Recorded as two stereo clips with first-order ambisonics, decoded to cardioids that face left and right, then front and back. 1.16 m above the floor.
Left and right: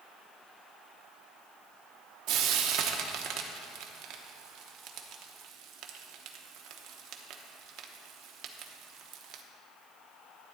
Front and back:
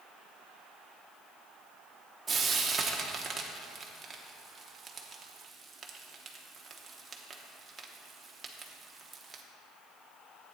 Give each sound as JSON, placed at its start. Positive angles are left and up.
{"t": 2.3, "sound": "frying", "azimuth_deg": -110, "distance_m": 1.0}